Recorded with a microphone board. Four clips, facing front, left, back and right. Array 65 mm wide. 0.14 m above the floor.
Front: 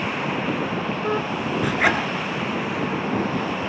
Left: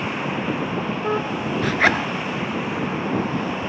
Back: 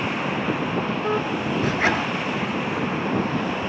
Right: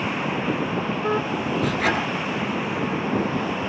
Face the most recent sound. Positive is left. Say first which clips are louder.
# left 5 dB, front 2 dB
turn(degrees=75)